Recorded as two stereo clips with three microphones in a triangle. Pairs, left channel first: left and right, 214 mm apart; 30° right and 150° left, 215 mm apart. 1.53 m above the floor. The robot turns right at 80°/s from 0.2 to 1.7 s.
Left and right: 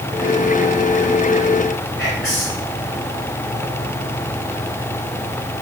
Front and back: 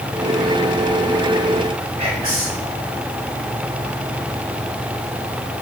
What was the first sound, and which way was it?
Whispering, 105° left.